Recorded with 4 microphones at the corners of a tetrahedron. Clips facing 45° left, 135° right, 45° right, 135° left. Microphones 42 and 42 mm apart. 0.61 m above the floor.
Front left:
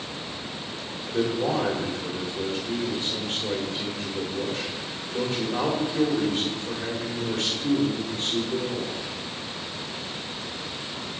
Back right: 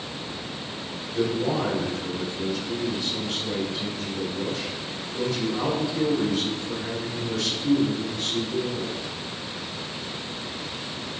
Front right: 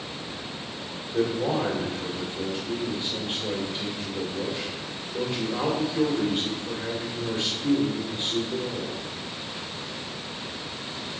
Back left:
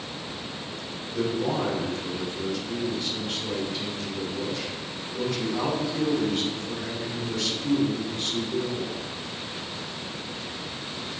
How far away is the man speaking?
About 2.0 m.